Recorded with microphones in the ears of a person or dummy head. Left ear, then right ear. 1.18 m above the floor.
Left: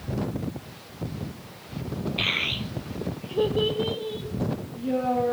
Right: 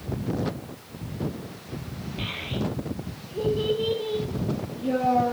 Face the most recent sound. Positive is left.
turn(degrees=-20)  # may be behind; listen again after turning